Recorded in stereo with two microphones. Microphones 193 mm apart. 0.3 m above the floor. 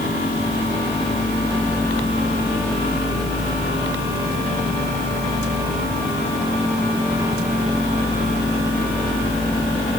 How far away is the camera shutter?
No camera shutter in this recording.